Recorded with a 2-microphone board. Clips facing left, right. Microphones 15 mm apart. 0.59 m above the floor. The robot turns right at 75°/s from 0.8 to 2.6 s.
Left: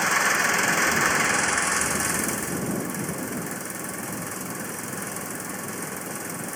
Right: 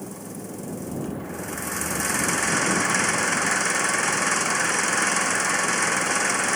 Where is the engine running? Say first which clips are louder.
Left 15 dB; 85° left; by 6.6 s 140° right.